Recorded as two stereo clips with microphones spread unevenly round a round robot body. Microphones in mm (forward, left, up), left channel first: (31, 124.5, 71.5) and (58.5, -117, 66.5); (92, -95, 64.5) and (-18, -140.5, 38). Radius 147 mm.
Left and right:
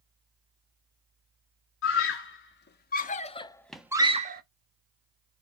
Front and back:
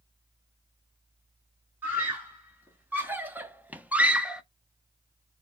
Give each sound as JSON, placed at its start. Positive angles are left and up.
{"t": 1.8, "sound": "a scream", "azimuth_deg": 130, "distance_m": 1.5}